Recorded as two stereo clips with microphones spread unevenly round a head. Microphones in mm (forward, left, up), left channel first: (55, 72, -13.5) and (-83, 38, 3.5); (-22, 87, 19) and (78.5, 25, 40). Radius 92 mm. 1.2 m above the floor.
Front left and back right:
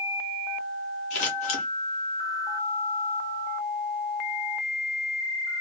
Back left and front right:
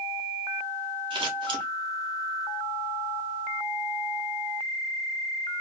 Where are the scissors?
20° right, 0.9 m.